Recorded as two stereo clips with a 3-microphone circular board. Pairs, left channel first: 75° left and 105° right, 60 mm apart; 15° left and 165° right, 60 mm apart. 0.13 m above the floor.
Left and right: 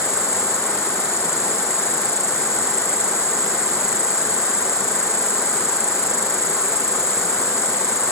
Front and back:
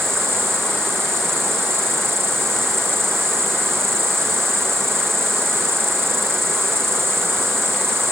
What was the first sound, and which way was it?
An insect, 120° right.